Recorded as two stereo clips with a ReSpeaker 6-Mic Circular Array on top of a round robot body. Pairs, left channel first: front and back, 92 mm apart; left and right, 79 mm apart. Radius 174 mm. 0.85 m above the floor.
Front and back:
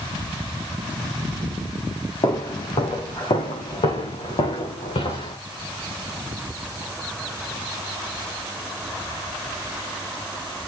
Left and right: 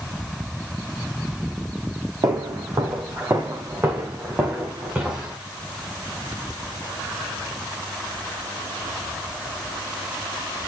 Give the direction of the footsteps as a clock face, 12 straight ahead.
1 o'clock.